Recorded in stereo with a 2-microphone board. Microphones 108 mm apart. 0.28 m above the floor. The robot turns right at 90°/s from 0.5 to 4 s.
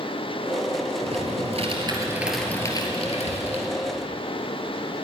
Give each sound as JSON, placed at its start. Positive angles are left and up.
{"t": 1.0, "sound": "typing on a keyboard", "azimuth_deg": -120, "distance_m": 2.0}